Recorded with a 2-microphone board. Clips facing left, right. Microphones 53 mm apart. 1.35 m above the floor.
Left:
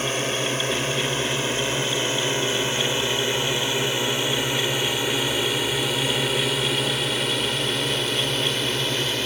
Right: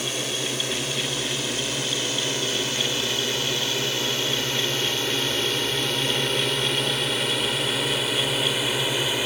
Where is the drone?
40° left (ahead or behind); by 9.3 s 10° right (ahead or behind).